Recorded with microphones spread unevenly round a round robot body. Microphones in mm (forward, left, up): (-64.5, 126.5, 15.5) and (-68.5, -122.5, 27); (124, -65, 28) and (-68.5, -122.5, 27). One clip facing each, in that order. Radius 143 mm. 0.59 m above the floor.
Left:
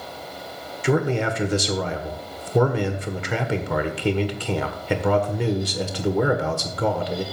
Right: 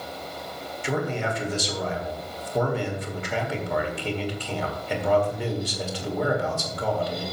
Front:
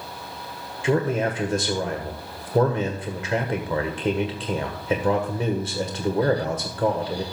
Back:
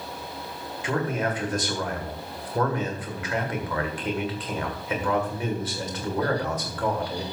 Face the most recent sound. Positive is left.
turn(degrees=85)